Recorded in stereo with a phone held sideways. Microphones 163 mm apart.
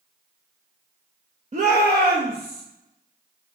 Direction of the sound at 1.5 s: 45° right (ahead or behind).